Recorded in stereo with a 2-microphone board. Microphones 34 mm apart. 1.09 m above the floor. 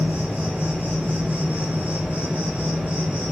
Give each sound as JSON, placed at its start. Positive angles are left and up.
{"t": 0.0, "sound": "an insect", "side_deg": -55, "distance_m": 1.4}